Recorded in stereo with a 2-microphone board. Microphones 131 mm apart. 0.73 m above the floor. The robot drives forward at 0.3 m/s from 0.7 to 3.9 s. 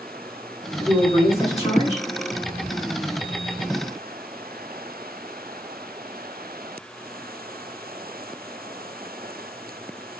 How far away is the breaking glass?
I don't hear breaking glass.